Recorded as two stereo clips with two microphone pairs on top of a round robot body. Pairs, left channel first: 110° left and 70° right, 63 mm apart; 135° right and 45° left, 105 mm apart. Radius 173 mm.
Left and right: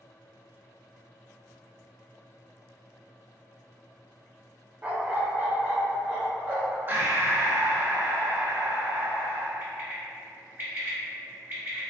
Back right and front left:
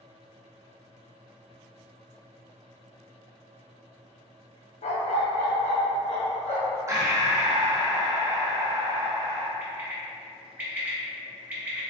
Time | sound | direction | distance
4.8 | a dog barking | 135° right | 0.6 m
6.9 | breathing | 15° right | 0.9 m
9.6 | a bird | 20° right | 1.7 m